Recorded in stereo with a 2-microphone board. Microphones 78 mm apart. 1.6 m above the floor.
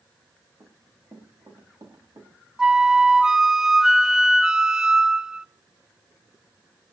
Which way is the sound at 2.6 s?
10° right (ahead or behind).